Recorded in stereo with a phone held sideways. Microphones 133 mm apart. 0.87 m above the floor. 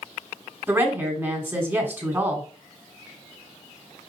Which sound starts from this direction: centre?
A woman speaking, at 0.7 s.